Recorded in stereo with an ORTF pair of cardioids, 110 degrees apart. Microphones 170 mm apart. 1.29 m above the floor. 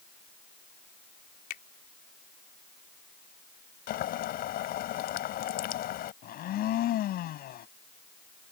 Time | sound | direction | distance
1.5 | a finger snap | 65° left | ?
3.9 | boiling | 65° left | ?
6.2 | a blender | 65° left | ?